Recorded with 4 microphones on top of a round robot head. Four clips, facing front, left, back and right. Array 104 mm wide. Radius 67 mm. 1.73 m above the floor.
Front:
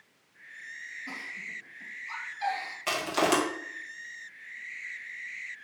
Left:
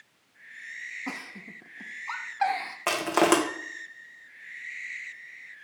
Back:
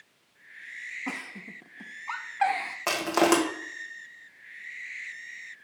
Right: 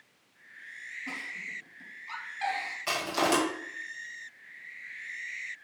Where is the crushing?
120° left, 1.9 m.